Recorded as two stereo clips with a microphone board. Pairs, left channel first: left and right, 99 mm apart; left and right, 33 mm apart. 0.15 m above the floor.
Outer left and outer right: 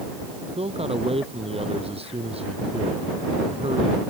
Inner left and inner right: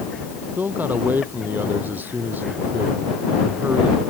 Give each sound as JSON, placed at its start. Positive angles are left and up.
{"t": 0.6, "sound": "a man speaking", "side_deg": -75}